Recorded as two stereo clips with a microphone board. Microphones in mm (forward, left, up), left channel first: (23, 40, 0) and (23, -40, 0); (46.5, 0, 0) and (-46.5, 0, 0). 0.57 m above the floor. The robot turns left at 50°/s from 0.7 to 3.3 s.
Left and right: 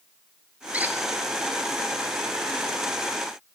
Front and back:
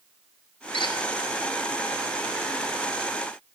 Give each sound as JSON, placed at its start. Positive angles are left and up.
{"t": 0.7, "sound": "a squeak", "azimuth_deg": -15, "distance_m": 1.1}